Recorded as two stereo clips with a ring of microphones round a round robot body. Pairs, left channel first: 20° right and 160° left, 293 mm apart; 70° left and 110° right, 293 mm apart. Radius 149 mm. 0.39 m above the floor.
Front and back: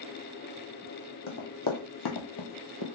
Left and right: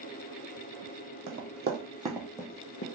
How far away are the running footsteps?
About 1.1 m.